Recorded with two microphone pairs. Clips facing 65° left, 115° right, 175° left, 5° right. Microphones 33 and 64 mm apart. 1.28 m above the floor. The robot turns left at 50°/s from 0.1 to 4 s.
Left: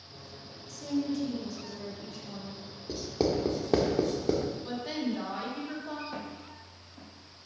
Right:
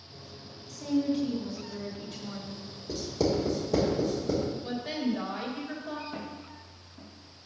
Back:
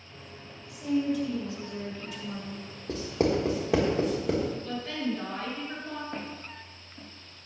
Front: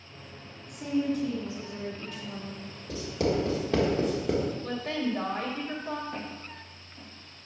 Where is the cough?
I don't hear a cough.